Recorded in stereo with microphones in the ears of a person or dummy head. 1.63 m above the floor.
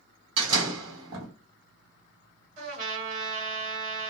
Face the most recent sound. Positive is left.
turn(degrees=-50)  # may be behind; listen again after turning